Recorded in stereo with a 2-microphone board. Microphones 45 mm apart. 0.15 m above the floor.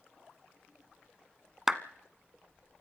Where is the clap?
10° right (ahead or behind), 0.9 m.